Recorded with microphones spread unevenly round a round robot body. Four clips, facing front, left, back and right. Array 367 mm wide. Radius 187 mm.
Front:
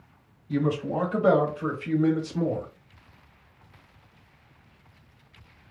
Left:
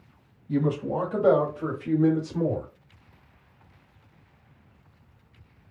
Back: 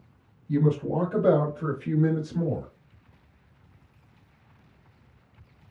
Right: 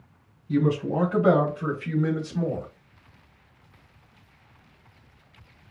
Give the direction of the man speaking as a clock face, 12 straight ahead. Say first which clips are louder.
Right 2 dB, back 2 dB; 7 o'clock.